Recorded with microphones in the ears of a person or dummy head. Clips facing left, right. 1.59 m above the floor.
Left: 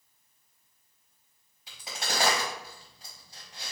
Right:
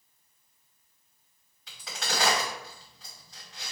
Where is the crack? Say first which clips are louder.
Even; 20° left (ahead or behind), 1.6 m.